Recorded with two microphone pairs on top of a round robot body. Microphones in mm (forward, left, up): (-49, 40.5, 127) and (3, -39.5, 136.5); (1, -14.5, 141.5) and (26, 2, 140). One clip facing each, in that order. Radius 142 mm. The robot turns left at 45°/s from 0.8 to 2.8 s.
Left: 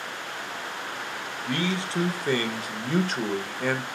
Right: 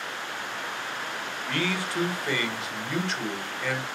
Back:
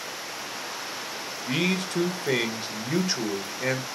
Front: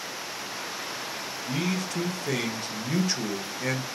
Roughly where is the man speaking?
Behind.